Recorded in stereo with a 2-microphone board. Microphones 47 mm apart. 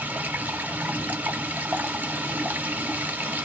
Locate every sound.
0.0 s running water: 40° right (ahead or behind), 0.8 m